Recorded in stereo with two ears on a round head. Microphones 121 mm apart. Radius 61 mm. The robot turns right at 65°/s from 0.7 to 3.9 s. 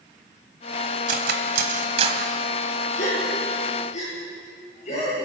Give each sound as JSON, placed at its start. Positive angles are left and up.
{"t": 1.1, "sound": "cutlery clinking", "side_deg": -70, "distance_m": 2.0}
{"t": 3.0, "sound": "a gasp", "side_deg": 65, "distance_m": 9.0}